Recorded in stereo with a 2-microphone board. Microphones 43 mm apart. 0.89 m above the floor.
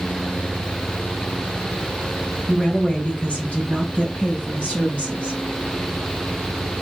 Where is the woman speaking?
30° left (ahead or behind), 5.5 m; by 5.4 s 35° left (ahead or behind), 7 m.